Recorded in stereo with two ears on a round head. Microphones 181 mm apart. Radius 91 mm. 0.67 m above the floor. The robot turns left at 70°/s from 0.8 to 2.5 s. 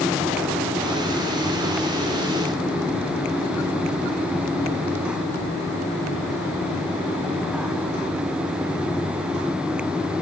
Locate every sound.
Only background noise.